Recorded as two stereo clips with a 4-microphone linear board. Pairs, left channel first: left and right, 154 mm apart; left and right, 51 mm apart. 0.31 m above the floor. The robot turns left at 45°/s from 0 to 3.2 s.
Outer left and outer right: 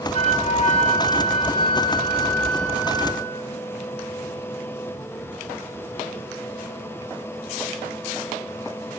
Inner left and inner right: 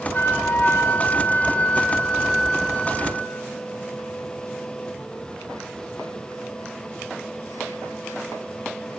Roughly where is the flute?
Behind left.